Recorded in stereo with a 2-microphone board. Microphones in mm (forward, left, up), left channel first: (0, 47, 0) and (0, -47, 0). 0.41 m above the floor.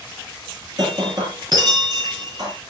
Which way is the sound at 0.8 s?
45° right (ahead or behind).